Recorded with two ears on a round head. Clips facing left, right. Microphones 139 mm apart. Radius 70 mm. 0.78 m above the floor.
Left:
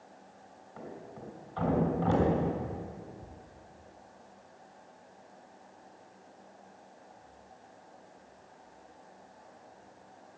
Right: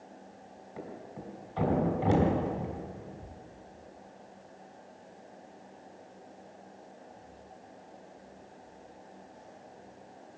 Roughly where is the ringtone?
I don't hear a ringtone.